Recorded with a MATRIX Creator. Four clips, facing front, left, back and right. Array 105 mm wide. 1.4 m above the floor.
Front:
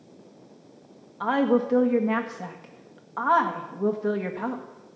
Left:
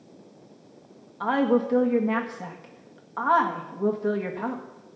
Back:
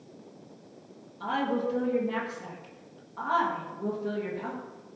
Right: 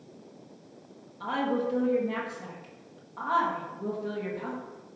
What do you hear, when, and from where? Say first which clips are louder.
1.2 s a woman speaking: left 6 dB, front 7 dB; 40° left, 1.5 m